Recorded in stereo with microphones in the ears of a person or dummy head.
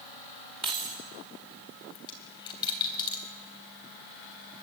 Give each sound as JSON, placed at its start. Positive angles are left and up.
{"t": 0.6, "sound": "keys jangling", "side_deg": -25, "distance_m": 3.0}
{"t": 1.9, "sound": "a dropped coin", "side_deg": 25, "distance_m": 3.0}